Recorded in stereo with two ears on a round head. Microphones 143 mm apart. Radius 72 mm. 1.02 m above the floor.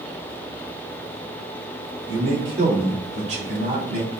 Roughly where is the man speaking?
Right.